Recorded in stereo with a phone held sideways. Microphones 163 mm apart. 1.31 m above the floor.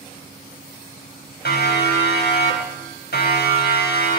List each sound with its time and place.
1.4 s a siren: 80° left, 7 m; by 4.2 s 70° left (ahead or behind), 5.5 m